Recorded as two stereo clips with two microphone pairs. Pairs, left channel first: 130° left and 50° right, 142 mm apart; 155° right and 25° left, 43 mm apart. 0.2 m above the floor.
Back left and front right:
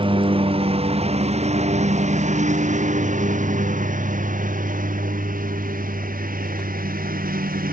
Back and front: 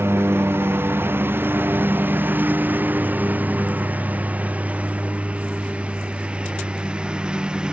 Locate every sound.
0.0 s a lawn mower: 5° left; by 7.7 s 40° right